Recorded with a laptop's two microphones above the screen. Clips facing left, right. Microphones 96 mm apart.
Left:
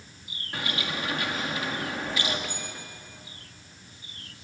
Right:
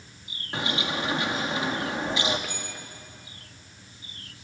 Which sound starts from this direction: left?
A bell, at 2.5 s.